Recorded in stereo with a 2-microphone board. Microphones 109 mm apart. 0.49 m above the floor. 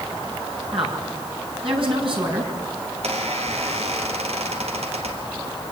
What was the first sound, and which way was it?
A woman speaking, 55° right (ahead or behind).